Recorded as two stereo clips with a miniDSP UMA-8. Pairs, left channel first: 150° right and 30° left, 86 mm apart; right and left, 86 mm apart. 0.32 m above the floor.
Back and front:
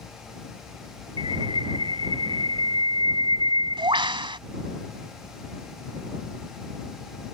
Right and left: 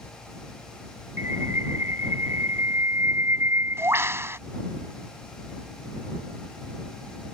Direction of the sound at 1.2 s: 30° left.